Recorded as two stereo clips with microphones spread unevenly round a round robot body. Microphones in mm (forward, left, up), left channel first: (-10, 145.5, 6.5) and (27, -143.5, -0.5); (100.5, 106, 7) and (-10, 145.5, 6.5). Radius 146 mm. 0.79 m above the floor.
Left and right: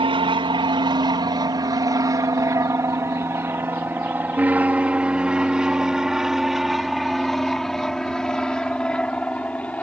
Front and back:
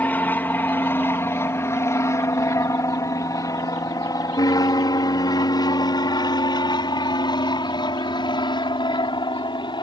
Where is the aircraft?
60° right; by 9.8 s 15° left.